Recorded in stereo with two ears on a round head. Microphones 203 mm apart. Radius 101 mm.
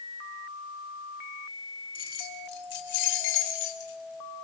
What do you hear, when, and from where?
1.9 s keys jangling: 45° left (ahead or behind), 3 m; by 4.4 s 70° left (ahead or behind), 4 m